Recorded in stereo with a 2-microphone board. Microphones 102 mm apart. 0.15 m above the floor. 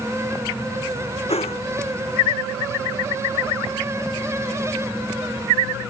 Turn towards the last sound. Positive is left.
turn(degrees=80)